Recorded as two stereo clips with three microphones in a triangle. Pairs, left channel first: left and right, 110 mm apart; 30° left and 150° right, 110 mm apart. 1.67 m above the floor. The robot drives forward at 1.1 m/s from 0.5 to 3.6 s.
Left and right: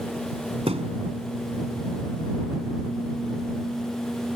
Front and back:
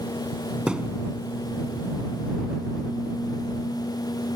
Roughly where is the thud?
Ahead right.